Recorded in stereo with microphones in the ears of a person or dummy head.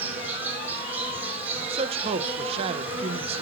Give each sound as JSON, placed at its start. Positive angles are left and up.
{"t": 0.0, "sound": "an insect", "side_deg": -10, "distance_m": 4.0}
{"t": 1.6, "sound": "a man speaking", "side_deg": -30, "distance_m": 0.5}